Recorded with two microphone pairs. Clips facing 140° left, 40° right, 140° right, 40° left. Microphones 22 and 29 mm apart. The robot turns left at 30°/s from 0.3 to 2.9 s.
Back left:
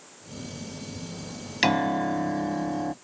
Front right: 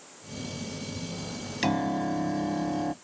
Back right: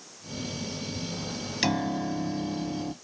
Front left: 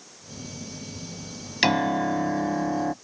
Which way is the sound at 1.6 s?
95° left.